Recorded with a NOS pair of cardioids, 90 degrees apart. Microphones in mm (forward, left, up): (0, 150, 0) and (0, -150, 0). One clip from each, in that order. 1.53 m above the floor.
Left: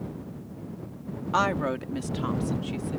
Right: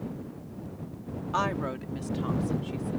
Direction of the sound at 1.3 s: 30° left.